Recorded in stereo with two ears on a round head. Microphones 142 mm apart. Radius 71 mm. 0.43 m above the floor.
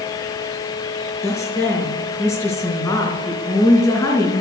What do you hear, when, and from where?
1.2 s a woman speaking: 20° left (ahead or behind), 4 m